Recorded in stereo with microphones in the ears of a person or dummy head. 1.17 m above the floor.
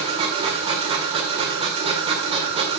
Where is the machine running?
35° right (ahead or behind), 1.8 m.